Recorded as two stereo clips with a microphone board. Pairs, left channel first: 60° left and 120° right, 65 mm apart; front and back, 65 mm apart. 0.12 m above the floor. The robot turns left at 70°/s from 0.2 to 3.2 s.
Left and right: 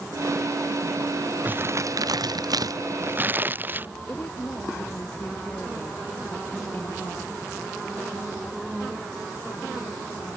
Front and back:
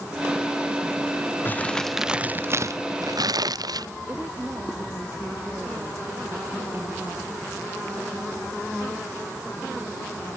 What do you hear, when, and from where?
1.4 s crumpling: 55° right; by 3.9 s straight behind
4.1 s a woman speaking: 120° left